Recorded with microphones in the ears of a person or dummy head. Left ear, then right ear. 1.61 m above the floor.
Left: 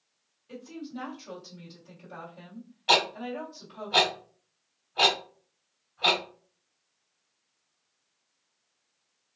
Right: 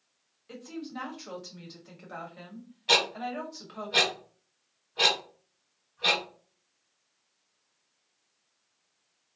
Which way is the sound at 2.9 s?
45° left (ahead or behind).